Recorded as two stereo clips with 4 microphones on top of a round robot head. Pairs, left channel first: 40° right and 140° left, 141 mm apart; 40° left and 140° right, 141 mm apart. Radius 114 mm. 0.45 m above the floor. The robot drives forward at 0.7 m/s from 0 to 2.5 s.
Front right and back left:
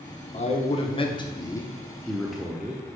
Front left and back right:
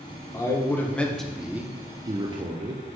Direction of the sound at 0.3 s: 25° right.